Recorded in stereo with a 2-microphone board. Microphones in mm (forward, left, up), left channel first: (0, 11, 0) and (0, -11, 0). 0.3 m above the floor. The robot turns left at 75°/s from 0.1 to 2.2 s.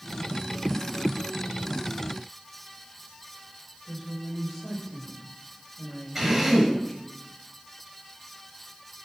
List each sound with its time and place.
3.9 s a woman speaking: centre (ahead or behind), 6.5 m
6.2 s a drill: 5° right (ahead or behind), 5.5 m